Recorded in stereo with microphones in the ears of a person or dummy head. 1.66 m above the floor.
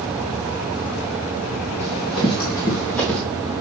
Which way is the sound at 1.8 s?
35° left (ahead or behind).